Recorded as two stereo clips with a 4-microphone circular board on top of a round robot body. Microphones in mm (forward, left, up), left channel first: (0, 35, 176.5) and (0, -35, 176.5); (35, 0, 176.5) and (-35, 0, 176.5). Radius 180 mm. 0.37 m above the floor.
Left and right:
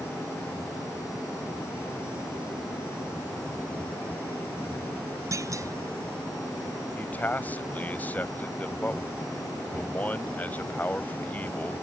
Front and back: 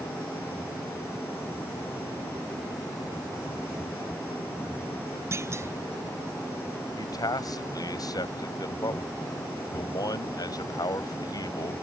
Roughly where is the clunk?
Behind right.